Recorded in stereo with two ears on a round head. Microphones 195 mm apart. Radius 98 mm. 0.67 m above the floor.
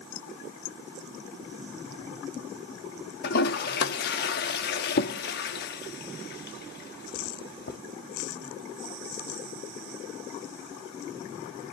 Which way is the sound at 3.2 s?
50° left (ahead or behind).